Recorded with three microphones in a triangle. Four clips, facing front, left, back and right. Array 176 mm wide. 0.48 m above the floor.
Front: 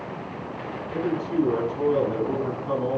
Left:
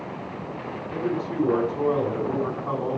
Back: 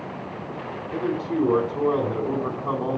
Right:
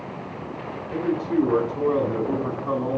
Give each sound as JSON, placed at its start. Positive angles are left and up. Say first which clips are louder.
{"t": 0.9, "sound": "a man speaking", "louder": "right 4 dB, even", "azimuth_deg": -175, "distance_m": 4.5}